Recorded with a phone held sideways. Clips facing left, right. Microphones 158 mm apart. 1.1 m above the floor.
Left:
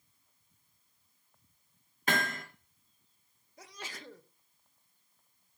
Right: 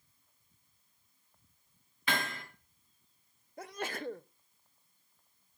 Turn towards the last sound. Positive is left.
turn(degrees=-55)  # may be behind; listen again after turning